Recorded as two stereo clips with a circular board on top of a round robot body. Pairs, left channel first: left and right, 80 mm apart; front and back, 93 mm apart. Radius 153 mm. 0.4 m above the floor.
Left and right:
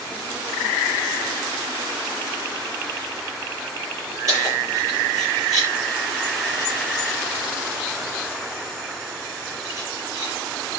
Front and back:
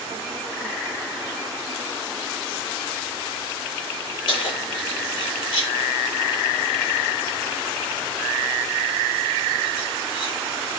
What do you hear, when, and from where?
4.3 s keys jangling: 40° right, 10 m